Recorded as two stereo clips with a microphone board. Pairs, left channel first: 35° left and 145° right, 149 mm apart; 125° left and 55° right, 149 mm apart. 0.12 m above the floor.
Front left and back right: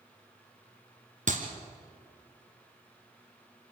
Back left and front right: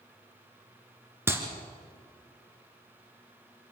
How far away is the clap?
About 2 m.